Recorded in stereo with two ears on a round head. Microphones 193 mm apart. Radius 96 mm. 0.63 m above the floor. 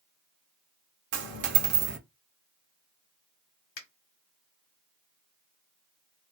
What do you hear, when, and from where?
1.1 s a dropped coin: 55° right (ahead or behind), 0.5 m
3.8 s a finger snap: 45° left (ahead or behind), 1.2 m